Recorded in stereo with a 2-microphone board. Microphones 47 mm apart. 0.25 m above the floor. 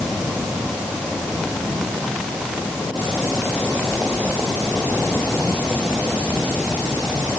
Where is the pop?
I don't hear a pop.